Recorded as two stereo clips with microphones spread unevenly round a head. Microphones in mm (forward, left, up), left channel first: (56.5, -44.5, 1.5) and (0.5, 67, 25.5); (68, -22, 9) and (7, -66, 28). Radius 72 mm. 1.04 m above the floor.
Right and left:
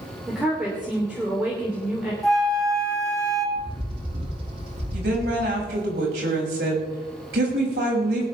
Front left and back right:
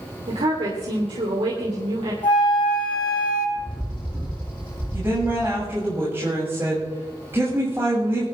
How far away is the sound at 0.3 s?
About 3 m.